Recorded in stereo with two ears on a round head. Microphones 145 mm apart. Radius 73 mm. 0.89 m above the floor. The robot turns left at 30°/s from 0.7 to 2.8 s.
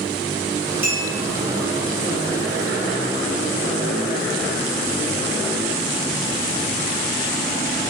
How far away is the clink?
About 1.5 m.